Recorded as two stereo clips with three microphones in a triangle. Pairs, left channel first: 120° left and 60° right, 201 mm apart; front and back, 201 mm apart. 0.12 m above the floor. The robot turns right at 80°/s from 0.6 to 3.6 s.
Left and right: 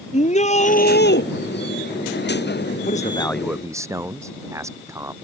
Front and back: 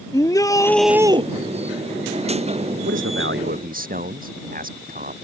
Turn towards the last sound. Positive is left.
turn(degrees=-135)